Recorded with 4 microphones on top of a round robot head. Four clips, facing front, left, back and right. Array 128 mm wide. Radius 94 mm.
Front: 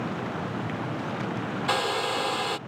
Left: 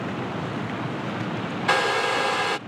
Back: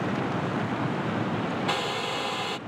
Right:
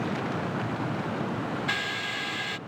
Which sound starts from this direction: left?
A hair dryer, at 1.7 s.